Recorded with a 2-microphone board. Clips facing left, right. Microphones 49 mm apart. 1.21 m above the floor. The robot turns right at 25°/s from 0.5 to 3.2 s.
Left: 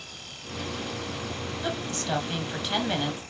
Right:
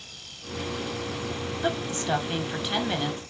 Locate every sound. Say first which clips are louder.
1.6 s a woman speaking: right 4 dB; 35° right, 1.2 m; by 3.2 s 5° left, 1.2 m